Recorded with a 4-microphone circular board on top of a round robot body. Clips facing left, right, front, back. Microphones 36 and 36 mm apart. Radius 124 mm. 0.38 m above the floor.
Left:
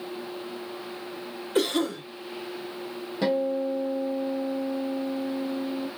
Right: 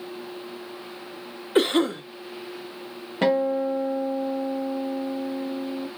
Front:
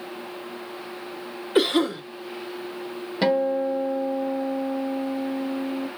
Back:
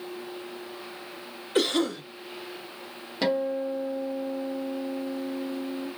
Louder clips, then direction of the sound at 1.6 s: Right 4 dB, front 4 dB; 65° right.